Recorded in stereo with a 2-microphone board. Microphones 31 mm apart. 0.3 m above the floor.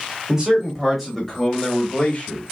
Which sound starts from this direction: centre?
A man speaking, at 0.3 s.